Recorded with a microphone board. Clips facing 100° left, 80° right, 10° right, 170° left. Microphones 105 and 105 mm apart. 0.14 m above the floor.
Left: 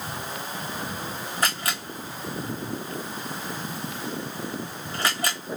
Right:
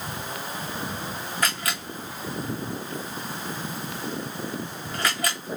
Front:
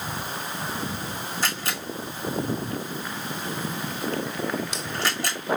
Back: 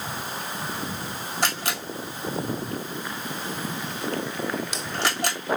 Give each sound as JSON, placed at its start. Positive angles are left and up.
{"t": 1.4, "sound": "a camera shutter", "azimuth_deg": 160, "distance_m": 2.0}